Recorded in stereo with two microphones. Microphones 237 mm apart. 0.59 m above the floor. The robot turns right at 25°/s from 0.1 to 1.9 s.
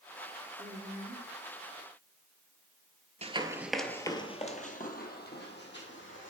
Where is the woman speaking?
35° right (ahead or behind), 1.6 m; by 1.3 s 25° right (ahead or behind), 1.6 m.